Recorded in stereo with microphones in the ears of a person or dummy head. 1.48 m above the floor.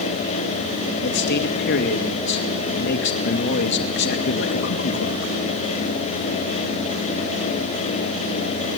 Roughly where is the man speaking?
Left.